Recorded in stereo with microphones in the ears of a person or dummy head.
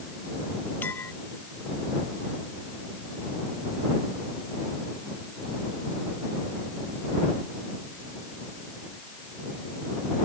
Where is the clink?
10° left (ahead or behind).